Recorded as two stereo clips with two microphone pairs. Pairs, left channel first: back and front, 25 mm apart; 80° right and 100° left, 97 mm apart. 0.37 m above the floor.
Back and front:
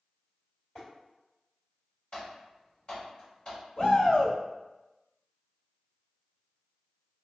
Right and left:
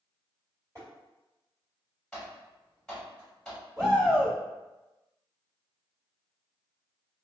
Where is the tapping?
135° left, 1.9 m.